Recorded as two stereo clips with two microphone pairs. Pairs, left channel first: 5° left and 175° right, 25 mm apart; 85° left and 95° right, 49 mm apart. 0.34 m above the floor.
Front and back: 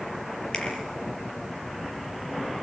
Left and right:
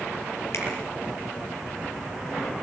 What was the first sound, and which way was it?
A finger snap, 60° left.